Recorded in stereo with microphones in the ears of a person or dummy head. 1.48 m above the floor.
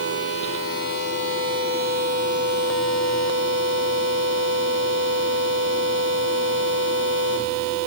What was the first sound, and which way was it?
Only background noise.